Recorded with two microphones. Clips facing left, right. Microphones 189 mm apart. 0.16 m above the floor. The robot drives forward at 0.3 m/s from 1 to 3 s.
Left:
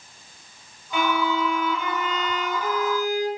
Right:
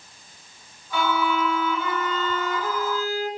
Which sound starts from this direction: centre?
A violin, at 0.9 s.